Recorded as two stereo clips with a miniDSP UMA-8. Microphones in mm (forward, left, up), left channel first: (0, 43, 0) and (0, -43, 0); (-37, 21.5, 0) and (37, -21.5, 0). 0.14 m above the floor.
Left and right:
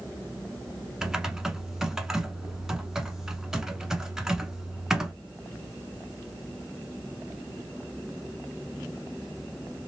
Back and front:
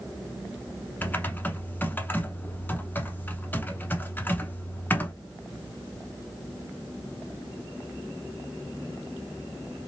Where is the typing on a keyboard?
165° right, 0.7 m.